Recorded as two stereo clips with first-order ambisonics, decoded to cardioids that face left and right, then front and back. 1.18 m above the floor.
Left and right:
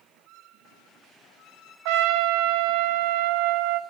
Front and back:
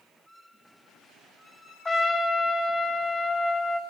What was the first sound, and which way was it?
A trumpet, 80° right.